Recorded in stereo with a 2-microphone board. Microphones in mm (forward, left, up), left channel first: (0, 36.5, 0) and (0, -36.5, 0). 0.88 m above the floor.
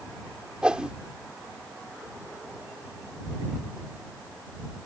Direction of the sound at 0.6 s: 10° right (ahead or behind).